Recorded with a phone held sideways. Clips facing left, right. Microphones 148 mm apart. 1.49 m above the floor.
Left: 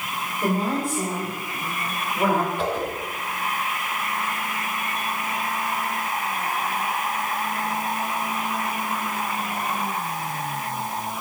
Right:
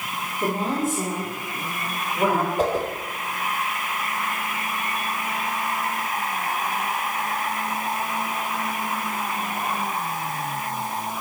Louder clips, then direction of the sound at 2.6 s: Right 3 dB; 40° right (ahead or behind).